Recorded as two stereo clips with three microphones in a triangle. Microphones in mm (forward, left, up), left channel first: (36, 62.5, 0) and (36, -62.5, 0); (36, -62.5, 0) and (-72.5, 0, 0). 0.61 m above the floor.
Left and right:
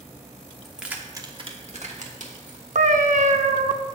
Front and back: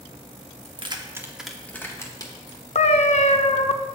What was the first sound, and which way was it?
Keys jangling, straight behind.